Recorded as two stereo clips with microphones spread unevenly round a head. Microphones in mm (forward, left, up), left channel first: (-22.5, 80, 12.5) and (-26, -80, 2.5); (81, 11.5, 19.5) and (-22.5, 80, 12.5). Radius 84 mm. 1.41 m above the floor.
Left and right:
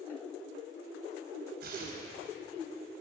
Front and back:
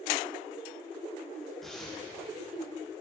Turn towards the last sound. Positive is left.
turn(degrees=-120)